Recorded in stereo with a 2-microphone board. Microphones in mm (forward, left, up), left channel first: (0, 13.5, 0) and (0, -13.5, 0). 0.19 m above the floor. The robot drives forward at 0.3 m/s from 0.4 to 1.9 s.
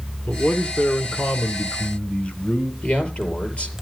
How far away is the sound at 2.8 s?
About 5 m.